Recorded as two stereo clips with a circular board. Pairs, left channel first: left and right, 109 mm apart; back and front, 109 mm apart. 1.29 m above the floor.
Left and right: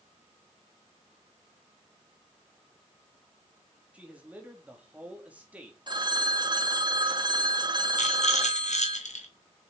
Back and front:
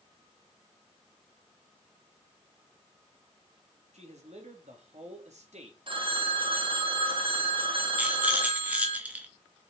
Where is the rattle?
80° left, 1.9 m.